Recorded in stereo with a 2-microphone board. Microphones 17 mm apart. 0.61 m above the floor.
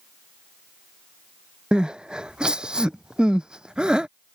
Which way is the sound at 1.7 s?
60° right (ahead or behind).